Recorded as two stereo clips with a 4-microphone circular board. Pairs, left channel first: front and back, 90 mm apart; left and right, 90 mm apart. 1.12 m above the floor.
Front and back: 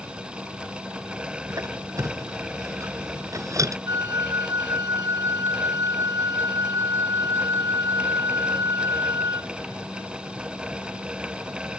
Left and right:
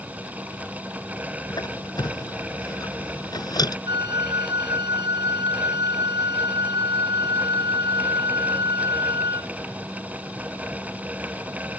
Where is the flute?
130° right.